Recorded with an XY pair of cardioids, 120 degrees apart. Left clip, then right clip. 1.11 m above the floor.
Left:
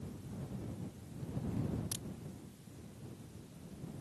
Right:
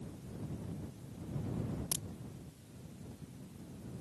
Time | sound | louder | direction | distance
1.9 | a crack | right 4 dB | 35° right | ?